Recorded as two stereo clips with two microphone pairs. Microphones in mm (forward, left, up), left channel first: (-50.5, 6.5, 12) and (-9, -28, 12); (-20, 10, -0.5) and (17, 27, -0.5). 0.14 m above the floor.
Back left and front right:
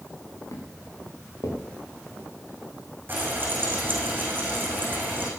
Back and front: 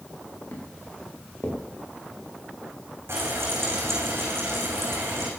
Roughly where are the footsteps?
Behind.